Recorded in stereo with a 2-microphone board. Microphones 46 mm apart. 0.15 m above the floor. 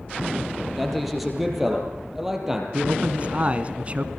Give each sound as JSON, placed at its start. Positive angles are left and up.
{"t": 0.8, "sound": "a man speaking", "side_deg": 0, "distance_m": 5.0}
{"t": 2.7, "sound": "a man speaking", "side_deg": -30, "distance_m": 1.2}